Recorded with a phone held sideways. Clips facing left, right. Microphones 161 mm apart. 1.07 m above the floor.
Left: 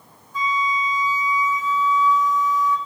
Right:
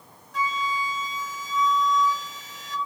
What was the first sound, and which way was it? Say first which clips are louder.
A flute: left 4 dB; 85° right.